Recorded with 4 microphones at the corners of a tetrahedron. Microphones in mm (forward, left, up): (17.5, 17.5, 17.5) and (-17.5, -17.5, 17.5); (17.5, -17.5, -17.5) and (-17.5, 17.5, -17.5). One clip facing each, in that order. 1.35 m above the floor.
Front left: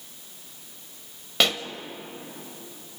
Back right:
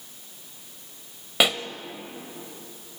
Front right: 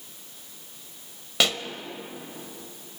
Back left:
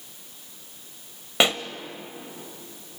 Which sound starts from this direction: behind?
A pop, at 1.4 s.